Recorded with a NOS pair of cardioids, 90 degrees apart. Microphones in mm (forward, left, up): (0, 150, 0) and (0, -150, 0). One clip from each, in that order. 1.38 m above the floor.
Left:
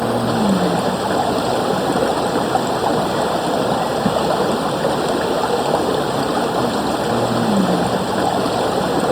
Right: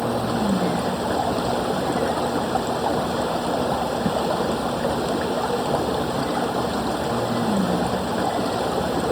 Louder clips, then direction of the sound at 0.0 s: Left 5 dB; 45° left.